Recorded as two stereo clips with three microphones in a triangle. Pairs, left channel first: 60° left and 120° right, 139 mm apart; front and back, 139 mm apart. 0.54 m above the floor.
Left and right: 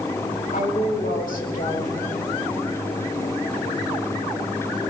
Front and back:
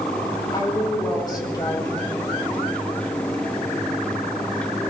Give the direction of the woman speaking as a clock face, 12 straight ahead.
10 o'clock.